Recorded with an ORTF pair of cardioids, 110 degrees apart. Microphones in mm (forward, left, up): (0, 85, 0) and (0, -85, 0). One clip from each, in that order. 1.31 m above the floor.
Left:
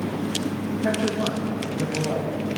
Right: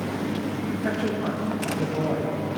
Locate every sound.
0.8 s a woman speaking: 10° left, 2 m